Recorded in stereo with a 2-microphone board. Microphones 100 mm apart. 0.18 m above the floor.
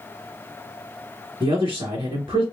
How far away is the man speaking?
About 2 m.